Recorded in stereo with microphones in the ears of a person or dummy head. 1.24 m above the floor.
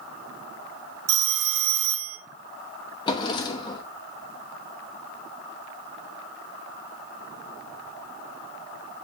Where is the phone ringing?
80° right, 0.7 m.